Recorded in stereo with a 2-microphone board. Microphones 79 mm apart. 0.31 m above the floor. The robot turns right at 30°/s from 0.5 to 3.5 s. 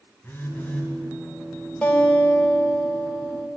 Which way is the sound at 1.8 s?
15° left (ahead or behind).